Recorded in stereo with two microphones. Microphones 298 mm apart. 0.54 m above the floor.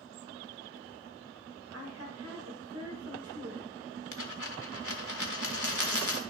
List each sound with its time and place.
1.7 s a woman speaking: 55° right (ahead or behind), 1.4 m
4.1 s a dropped coin: 85° left, 1.3 m